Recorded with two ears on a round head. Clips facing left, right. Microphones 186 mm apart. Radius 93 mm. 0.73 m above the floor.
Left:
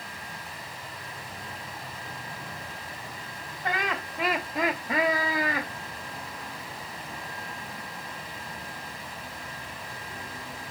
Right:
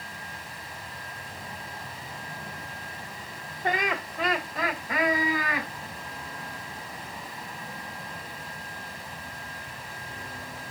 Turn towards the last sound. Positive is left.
turn(degrees=35)  # may be behind; listen again after turning